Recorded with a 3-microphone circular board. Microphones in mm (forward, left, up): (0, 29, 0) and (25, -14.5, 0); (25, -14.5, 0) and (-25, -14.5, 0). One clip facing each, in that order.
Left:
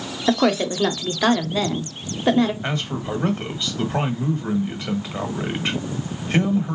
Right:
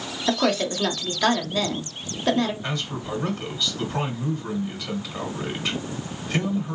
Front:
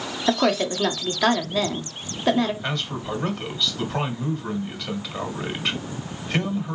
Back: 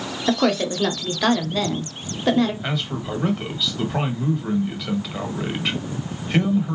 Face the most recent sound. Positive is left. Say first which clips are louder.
# left 4 dB, back 1 dB
turn(degrees=100)